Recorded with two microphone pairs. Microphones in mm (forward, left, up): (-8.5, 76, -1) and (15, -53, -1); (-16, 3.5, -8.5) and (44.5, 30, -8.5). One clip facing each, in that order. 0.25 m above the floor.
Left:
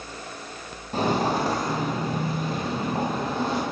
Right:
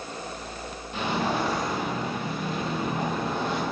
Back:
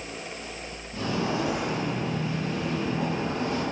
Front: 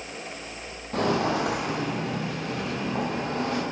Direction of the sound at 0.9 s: 50° left.